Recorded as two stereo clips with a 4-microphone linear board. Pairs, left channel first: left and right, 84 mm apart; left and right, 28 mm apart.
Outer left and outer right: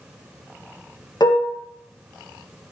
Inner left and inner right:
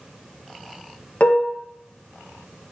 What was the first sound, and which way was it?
Dishes clattering, 55° left (ahead or behind).